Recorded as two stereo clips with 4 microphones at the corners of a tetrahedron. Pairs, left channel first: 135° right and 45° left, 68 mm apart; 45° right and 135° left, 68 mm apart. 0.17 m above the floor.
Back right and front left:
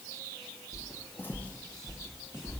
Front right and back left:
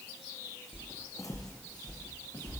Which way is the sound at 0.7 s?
110° right.